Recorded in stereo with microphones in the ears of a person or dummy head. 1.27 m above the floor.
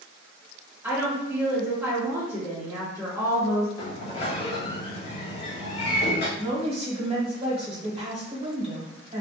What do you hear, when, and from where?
0.8 s a woman speaking: 10° right (ahead or behind), 1.0 m
3.8 s a sliding door: 35° left (ahead or behind), 0.7 m
6.4 s a woman speaking: 35° right (ahead or behind), 0.8 m